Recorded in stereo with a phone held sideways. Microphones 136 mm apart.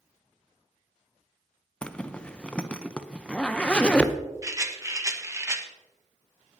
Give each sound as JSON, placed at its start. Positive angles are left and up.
{"t": 1.8, "sound": "a zipper", "side_deg": 10, "distance_m": 0.6}
{"t": 4.4, "sound": "a rattle", "side_deg": -25, "distance_m": 1.2}